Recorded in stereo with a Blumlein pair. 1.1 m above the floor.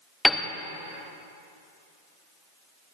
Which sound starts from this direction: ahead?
A piano, at 0.2 s.